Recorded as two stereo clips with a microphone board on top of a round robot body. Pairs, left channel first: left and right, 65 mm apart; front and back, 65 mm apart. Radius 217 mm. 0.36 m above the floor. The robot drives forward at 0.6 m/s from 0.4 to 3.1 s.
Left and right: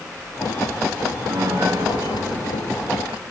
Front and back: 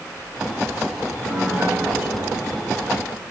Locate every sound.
1.3 s a piano: 110° right, 3.5 m; by 3.3 s 125° right, 4 m